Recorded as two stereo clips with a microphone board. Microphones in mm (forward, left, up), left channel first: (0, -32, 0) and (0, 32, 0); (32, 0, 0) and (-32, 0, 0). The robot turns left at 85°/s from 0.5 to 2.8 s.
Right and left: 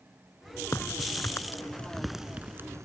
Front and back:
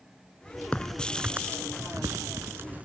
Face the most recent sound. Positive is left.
turn(degrees=115)